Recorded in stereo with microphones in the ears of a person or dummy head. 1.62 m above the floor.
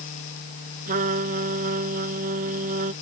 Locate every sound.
0.9 s a trumpet: 45° right (ahead or behind)